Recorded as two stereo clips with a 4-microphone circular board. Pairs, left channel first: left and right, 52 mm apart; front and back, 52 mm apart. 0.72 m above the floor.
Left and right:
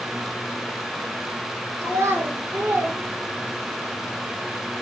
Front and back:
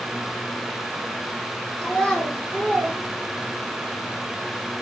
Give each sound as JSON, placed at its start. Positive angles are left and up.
{"t": 1.8, "sound": "a child speaking", "azimuth_deg": -65, "distance_m": 1.2}